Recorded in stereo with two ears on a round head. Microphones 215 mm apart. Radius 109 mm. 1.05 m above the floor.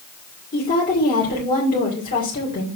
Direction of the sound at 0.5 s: 35° left (ahead or behind).